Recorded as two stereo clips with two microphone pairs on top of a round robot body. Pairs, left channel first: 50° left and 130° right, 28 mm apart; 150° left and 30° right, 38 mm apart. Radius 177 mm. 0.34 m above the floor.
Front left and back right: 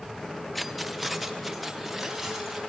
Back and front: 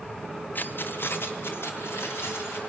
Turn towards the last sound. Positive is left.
turn(degrees=145)